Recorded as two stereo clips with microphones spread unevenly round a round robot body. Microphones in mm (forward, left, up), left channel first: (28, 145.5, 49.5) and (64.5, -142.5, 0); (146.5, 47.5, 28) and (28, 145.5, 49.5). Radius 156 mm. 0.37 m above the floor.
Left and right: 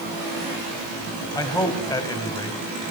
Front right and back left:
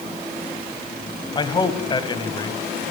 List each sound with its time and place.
1.4 s a man speaking: 15° left, 2.5 m